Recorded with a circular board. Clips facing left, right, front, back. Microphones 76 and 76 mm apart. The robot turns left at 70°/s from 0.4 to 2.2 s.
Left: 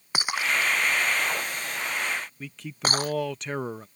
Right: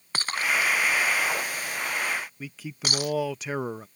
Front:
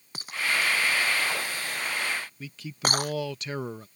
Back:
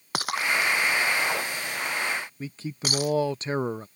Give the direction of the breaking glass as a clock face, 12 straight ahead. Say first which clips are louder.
Even, back 3 dB; 6 o'clock.